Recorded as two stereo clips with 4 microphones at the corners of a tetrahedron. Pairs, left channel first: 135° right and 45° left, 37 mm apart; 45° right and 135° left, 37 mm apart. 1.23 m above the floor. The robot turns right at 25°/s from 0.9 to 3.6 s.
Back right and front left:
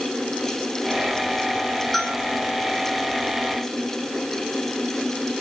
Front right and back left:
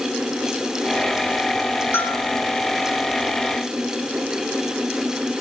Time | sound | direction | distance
1.9 | a bell | 45° right | 4 m